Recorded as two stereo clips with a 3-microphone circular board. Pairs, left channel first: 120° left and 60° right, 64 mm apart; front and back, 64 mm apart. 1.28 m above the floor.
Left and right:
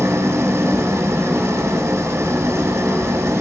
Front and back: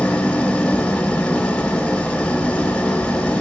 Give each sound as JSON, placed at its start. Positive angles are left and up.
{"t": 0.0, "sound": "an engine running", "azimuth_deg": -70, "distance_m": 1.4}